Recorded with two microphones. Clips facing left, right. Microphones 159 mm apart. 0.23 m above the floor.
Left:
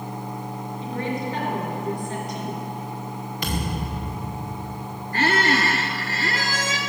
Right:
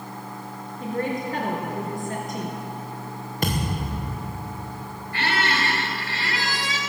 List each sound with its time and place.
0.8 s a woman speaking: 50° right (ahead or behind), 4 m
3.4 s a thud: 50° right (ahead or behind), 3.5 m
5.1 s a squeak: 45° left (ahead or behind), 1.7 m